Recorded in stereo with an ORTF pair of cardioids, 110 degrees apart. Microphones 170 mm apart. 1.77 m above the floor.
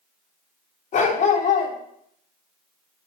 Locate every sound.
0.9 s a dog barking: 55° left, 4 m